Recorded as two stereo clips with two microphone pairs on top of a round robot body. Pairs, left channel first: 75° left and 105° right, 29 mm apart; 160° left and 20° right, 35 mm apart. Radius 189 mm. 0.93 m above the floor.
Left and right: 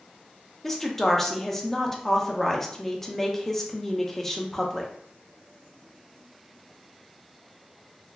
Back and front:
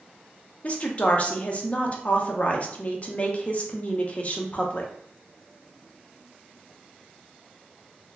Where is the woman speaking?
145° left, 0.9 m.